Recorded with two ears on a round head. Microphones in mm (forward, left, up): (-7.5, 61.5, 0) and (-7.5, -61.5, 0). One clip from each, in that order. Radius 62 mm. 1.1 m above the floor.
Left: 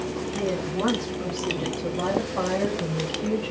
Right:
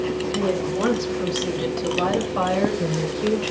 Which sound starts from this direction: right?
A woman speaking, at 0.3 s.